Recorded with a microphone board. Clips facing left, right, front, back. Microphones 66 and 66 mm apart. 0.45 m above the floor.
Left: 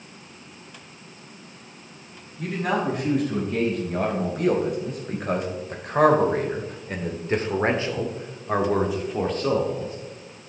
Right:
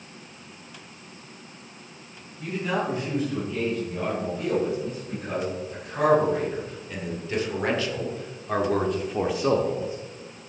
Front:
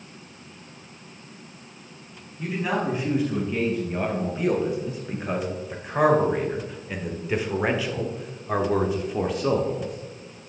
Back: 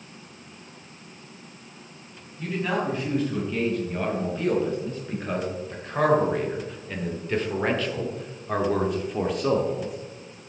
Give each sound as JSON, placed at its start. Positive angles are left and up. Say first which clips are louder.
{"t": 2.4, "sound": "a man speaking", "louder": "left 2 dB, front 1 dB", "azimuth_deg": 80, "distance_m": 4.0}